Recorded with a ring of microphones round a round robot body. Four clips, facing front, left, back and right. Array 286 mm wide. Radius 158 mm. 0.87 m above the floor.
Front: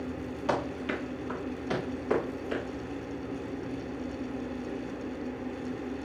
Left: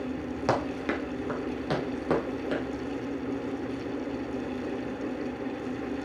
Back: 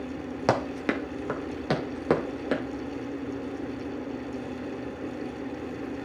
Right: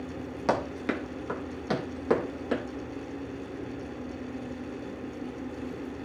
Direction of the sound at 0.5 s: 175° left.